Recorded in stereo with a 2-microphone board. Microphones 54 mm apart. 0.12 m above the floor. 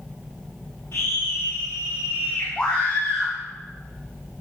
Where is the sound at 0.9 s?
45° left (ahead or behind), 5 m; by 2.5 s 60° left (ahead or behind), 5.5 m.